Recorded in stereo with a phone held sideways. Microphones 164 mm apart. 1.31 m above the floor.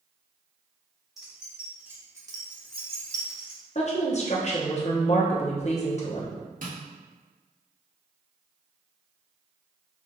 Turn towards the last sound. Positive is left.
turn(degrees=-60)  # may be behind; listen again after turning